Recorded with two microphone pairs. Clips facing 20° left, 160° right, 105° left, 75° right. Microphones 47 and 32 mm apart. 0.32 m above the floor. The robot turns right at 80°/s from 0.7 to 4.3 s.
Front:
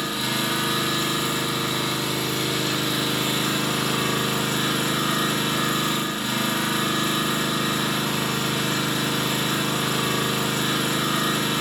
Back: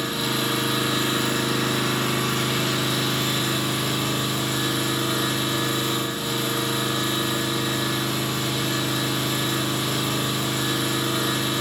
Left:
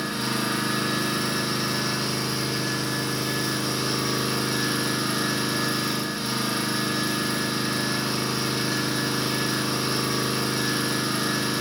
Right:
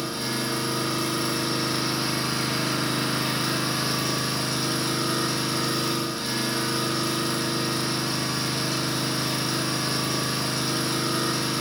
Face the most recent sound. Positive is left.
turn(degrees=35)